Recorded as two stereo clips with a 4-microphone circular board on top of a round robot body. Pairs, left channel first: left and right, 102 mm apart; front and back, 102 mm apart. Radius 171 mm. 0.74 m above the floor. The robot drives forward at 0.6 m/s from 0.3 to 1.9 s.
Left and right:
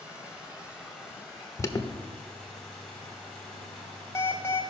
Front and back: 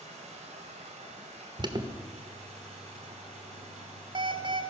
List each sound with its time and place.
0.0 s running water: 170° right, 1.1 m; by 4.7 s 175° right, 2 m
1.6 s an alarm: 145° left, 1.0 m; by 4.6 s 150° left, 1.2 m